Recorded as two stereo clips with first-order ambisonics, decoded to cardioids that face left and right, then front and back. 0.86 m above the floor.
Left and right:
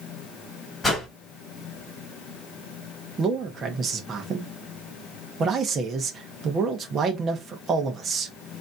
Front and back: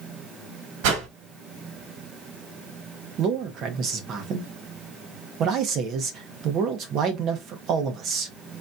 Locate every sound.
0.8 s a whoosh: 170° left, 1.9 m
3.2 s a man speaking: 150° right, 1.1 m